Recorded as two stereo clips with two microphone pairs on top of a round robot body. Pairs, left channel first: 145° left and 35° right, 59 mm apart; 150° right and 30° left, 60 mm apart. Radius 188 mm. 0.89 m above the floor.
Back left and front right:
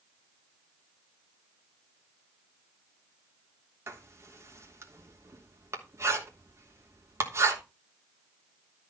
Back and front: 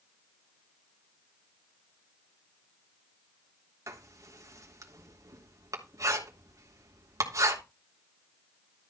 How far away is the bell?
No bell in this recording.